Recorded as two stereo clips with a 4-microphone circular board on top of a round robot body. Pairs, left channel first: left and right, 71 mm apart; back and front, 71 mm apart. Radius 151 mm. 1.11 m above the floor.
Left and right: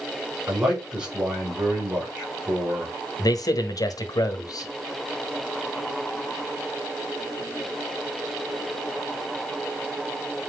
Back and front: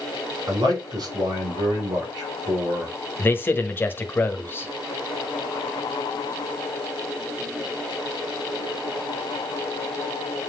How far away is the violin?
No violin in this recording.